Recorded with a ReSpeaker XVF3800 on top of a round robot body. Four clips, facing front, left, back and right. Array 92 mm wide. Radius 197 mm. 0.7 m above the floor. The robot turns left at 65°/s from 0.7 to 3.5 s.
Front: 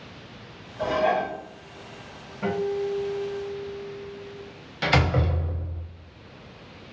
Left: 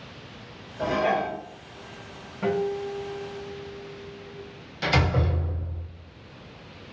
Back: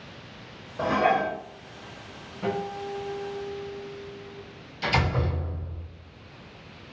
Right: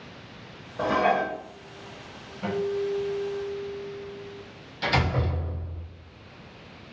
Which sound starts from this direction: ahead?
A door slam, at 4.8 s.